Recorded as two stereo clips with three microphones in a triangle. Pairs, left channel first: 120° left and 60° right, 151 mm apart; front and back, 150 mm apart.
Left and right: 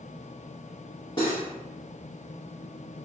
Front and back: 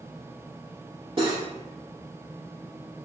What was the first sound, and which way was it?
Cutlery clinking, 155° left.